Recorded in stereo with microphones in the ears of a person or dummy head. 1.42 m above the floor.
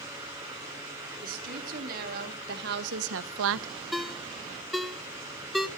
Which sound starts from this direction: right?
A woman speaking, at 1.2 s.